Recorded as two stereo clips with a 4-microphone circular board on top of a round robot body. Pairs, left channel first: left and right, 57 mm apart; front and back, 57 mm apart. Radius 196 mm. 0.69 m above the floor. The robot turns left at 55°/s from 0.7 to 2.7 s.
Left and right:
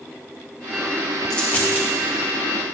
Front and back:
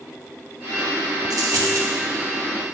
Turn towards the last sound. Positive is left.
turn(degrees=95)